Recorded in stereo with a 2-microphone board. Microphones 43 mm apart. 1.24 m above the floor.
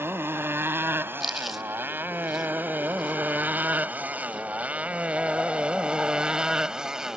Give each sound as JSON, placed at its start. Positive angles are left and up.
{"t": 0.0, "sound": "a motorcycle", "side_deg": -65}
{"t": 1.2, "sound": "chewing", "side_deg": -5}